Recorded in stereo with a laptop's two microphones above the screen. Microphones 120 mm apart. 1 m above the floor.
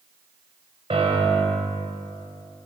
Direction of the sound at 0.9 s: 55° right (ahead or behind).